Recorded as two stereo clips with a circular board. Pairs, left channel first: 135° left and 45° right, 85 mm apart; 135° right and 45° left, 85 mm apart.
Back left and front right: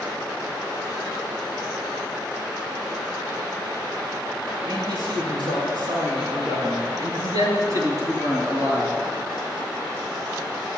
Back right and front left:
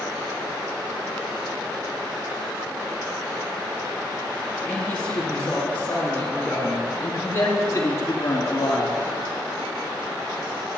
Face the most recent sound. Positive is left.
turn(degrees=-100)